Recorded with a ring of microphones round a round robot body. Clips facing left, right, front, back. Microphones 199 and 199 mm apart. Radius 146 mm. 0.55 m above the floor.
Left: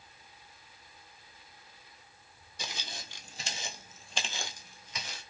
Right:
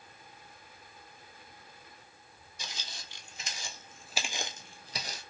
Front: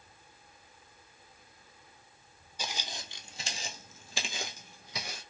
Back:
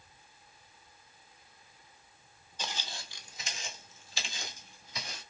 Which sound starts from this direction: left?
Footsteps, at 2.6 s.